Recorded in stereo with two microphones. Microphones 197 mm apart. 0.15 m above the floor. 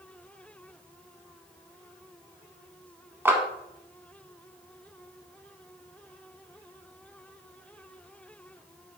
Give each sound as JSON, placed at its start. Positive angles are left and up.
{"t": 3.2, "sound": "a clap", "side_deg": -10, "distance_m": 0.8}